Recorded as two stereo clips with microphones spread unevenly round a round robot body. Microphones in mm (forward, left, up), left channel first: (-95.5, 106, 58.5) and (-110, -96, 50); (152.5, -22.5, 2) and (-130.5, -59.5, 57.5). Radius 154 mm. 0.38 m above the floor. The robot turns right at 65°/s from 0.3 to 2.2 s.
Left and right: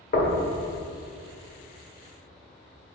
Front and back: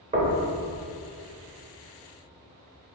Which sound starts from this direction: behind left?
Knocking, at 0.1 s.